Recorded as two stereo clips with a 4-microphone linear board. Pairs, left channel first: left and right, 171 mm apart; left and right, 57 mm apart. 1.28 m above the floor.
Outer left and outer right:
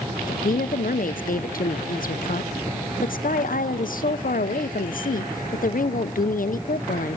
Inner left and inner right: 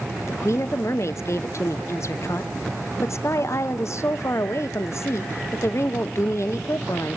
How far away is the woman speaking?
About 0.7 m.